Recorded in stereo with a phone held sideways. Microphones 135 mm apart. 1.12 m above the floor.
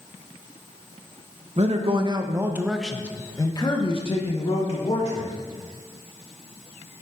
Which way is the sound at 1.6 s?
50° right (ahead or behind).